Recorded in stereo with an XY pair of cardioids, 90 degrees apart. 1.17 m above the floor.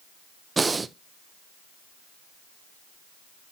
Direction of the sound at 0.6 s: 35° right.